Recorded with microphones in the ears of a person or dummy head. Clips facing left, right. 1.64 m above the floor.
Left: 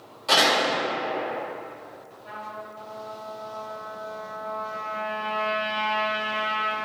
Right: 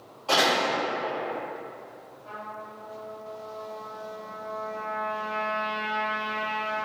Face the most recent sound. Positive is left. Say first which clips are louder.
# left 2 dB
turn(degrees=20)  # may be behind; listen again after turning